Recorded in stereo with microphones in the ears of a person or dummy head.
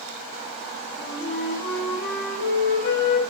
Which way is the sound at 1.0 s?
50° left (ahead or behind).